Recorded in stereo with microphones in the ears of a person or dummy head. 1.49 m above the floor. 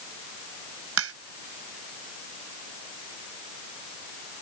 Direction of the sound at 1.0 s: 75° right (ahead or behind).